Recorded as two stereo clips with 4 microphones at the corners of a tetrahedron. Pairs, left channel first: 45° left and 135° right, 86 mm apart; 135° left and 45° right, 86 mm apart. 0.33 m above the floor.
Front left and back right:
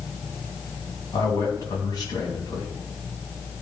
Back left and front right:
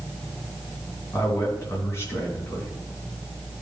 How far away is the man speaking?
About 3 m.